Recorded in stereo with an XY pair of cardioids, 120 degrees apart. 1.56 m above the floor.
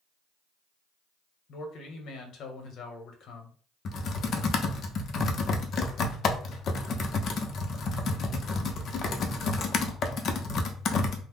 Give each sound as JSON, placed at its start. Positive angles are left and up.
{"t": 1.5, "sound": "a man speaking", "azimuth_deg": 65, "distance_m": 1.0}
{"t": 3.9, "sound": "typing on a keyboard", "azimuth_deg": 50, "distance_m": 0.7}